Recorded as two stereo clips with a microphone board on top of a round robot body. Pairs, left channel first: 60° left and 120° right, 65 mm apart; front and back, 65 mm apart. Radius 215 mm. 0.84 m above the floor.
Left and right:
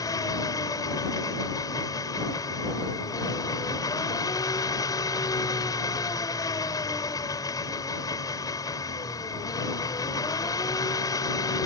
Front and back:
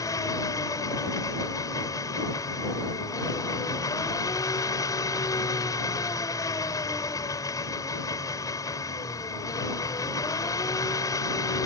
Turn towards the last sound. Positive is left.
turn(degrees=35)